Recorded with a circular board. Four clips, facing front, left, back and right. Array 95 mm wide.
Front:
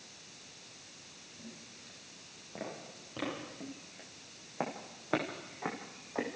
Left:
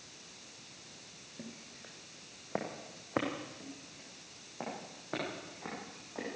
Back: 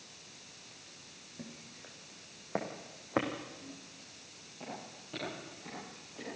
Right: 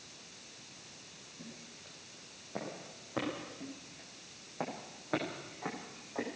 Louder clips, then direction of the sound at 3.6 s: Right 2 dB, front 3 dB; 10° right.